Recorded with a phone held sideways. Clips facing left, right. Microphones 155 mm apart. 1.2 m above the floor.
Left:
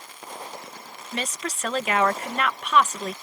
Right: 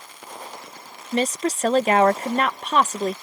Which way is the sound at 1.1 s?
35° right (ahead or behind).